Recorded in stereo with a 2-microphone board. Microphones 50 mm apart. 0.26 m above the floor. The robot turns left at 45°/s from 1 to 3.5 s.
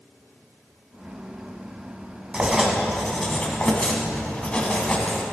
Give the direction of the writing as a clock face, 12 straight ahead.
5 o'clock.